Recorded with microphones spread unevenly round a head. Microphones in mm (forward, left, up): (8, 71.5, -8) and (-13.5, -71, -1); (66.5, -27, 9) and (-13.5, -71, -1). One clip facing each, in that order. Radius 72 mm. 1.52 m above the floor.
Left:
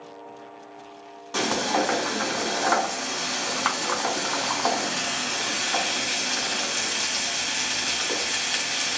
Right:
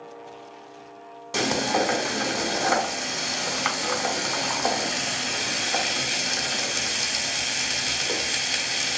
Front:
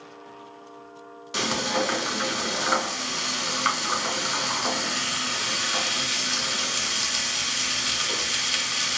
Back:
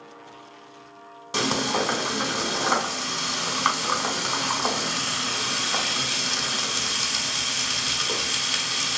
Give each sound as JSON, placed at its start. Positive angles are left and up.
{"t": 1.3, "sound": "frying", "azimuth_deg": -145, "distance_m": 1.3}